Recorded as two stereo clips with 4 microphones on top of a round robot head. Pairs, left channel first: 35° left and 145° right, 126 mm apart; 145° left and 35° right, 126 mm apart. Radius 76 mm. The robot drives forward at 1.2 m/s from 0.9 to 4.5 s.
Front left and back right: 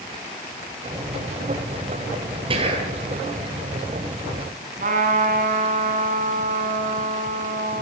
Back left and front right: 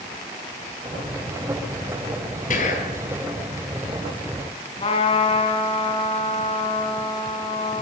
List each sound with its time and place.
2.5 s whispering: 165° left, 5 m; by 3.0 s 170° left, 5.5 m
4.8 s a trumpet: 170° right, 4.5 m